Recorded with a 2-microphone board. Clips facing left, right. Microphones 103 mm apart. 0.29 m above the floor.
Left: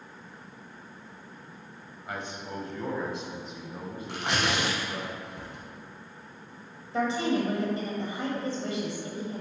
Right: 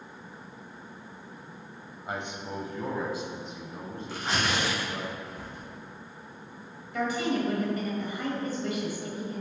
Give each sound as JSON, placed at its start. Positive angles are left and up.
{"t": 2.1, "sound": "a man speaking", "side_deg": -25, "distance_m": 1.1}
{"t": 4.1, "sound": "tearing paper", "side_deg": 70, "distance_m": 2.5}
{"t": 6.9, "sound": "a woman speaking", "side_deg": 30, "distance_m": 1.6}